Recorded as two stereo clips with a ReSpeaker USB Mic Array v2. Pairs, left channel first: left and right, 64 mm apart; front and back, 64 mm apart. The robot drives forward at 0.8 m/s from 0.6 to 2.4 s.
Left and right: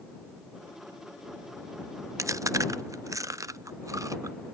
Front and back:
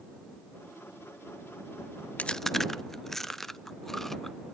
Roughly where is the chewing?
Ahead right.